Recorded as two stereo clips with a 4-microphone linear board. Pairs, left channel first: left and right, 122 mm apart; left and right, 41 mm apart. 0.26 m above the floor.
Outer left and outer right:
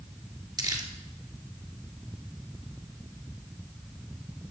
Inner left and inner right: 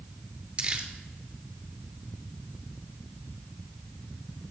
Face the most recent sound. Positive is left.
turn(degrees=-30)  # may be behind; listen again after turning